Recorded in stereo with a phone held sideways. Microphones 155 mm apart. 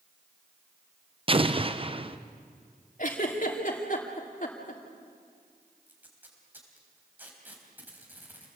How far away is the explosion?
About 0.8 m.